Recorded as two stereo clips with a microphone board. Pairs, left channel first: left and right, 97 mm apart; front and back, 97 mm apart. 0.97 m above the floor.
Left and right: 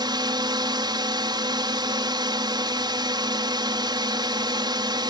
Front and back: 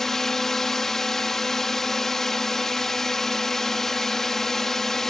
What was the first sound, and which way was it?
A drone, 85° right.